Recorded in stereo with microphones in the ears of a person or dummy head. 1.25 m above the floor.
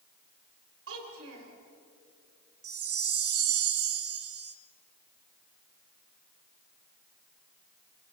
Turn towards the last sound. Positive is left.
turn(degrees=-65)  # may be behind; listen again after turning